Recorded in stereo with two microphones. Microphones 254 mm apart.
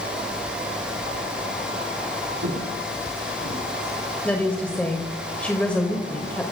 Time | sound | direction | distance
2.4 | footsteps | 85° right | 7.5 m
4.2 | a woman speaking | 5° left (ahead or behind) | 1.6 m